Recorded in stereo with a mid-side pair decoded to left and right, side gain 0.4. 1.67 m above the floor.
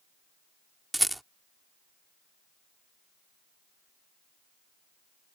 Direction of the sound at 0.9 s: 10° right.